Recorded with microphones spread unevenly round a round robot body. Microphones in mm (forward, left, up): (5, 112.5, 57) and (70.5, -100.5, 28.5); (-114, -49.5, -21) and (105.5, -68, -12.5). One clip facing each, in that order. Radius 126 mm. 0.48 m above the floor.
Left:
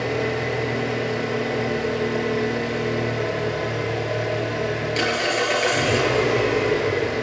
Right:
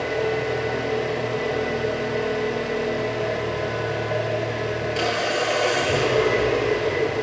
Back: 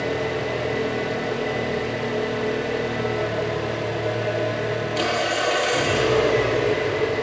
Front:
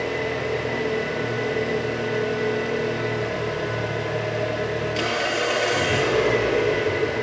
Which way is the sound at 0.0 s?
45° left.